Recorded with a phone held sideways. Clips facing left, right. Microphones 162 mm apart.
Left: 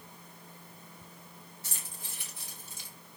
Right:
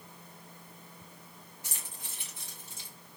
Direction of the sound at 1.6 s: 15° right (ahead or behind).